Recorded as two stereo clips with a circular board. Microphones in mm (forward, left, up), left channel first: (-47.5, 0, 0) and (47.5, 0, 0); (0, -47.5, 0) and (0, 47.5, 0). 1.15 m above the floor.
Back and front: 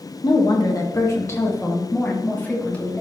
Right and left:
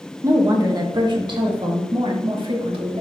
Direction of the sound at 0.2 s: 145° left.